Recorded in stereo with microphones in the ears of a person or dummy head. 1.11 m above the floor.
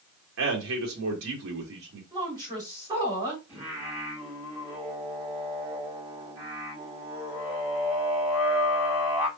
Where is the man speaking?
70° right (ahead or behind), 1.5 m.